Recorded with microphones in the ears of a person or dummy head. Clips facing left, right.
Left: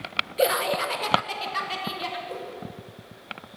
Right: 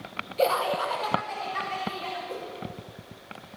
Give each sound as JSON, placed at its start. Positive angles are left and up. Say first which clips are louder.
{"t": 0.4, "sound": "laughter", "louder": "left 1 dB", "side_deg": 15, "distance_m": 1.0}
{"t": 2.3, "sound": "a whoosh", "louder": "left 1 dB", "side_deg": 0, "distance_m": 5.5}